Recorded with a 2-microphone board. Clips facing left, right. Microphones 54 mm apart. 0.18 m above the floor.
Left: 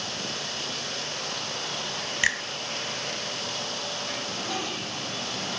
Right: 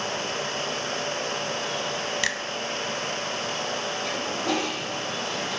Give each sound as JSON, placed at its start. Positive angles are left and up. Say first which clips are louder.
{"t": 2.2, "sound": "a finger snap", "louder": "left 6 dB", "side_deg": 20, "distance_m": 0.8}
{"t": 4.0, "sound": "a toilet flushing", "louder": "right 6 dB", "side_deg": -75, "distance_m": 2.5}